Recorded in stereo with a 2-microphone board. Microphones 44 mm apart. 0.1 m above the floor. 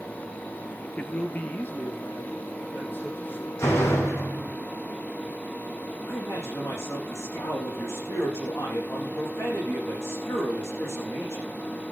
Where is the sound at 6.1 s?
70° left (ahead or behind), 7 m.